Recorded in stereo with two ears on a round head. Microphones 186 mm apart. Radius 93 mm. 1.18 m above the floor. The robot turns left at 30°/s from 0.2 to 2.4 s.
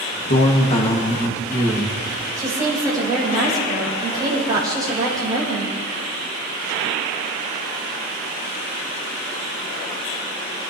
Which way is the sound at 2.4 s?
20° right (ahead or behind).